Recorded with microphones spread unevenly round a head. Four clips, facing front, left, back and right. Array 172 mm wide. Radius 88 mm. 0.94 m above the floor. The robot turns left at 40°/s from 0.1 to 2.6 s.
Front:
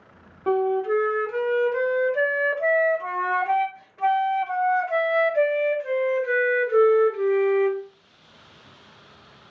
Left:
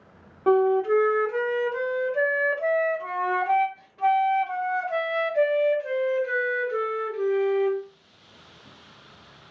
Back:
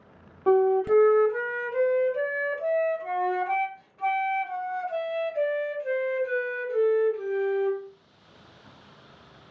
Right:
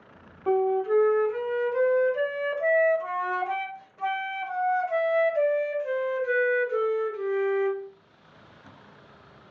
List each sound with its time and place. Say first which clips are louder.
0.5 s a flute: left 4 dB, back 2 dB; 110° left, 0.5 m; by 7.8 s 20° left, 0.5 m